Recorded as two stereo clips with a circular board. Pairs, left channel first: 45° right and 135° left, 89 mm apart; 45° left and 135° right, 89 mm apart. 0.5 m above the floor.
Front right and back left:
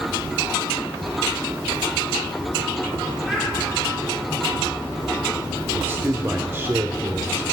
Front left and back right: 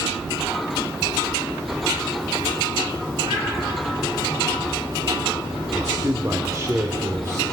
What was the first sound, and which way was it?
A child speaking, 140° right.